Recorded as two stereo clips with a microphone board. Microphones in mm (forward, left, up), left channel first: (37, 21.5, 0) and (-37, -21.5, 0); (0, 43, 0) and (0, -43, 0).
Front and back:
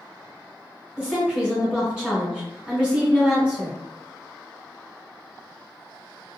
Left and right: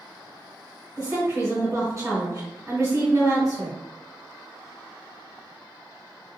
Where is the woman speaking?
75° right, 1.8 m.